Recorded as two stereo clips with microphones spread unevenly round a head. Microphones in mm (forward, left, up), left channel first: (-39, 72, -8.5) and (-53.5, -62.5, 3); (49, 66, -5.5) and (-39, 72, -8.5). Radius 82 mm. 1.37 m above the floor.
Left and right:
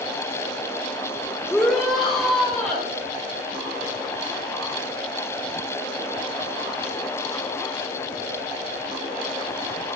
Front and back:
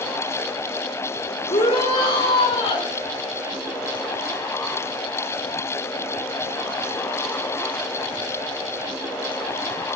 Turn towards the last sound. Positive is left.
turn(degrees=-5)